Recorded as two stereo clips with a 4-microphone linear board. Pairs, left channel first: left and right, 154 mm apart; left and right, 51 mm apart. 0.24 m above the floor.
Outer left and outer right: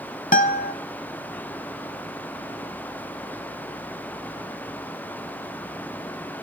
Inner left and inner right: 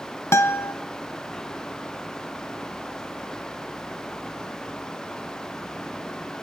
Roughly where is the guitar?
Left.